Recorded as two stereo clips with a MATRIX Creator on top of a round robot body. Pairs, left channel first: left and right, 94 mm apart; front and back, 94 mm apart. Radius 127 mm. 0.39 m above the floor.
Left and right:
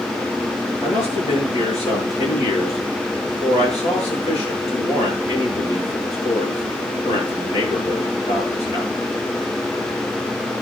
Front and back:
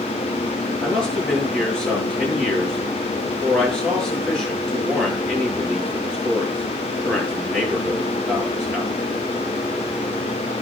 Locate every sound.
0.8 s a man speaking: 85° left, 7.5 m